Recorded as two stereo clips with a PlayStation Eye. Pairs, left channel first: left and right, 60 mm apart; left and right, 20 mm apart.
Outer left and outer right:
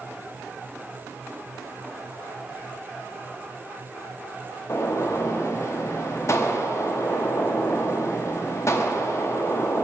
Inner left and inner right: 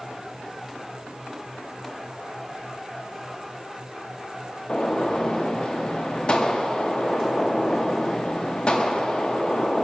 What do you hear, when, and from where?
4.7 s a gunshot: 55° left (ahead or behind), 0.5 m